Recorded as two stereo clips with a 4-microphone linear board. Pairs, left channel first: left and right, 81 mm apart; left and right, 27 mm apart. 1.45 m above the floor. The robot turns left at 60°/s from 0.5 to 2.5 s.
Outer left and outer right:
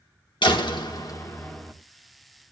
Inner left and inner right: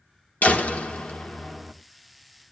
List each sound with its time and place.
0.4 s a door slam: 80° left, 1.3 m; by 1.7 s 10° left, 1.3 m